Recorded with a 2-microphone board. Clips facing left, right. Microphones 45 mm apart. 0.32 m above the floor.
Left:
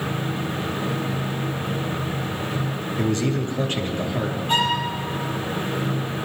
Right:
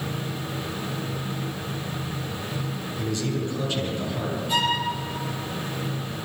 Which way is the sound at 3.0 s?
50° left (ahead or behind).